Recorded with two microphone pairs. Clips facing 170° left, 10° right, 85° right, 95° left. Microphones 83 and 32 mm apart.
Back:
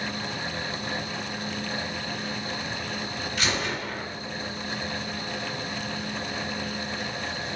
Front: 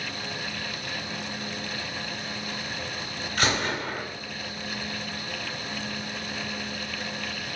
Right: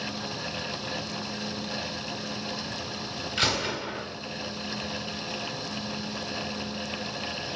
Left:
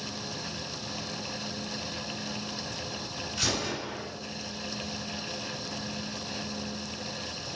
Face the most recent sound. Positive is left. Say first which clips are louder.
# front 3 dB, right 4 dB
turn(degrees=-45)